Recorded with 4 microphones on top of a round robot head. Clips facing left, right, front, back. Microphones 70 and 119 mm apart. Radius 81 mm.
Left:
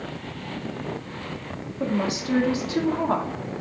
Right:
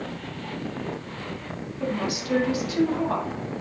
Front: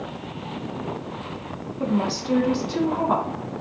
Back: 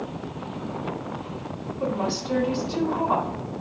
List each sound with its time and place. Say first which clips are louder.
1.8 s a woman speaking: left 3 dB, front 3 dB; 35° left, 2 m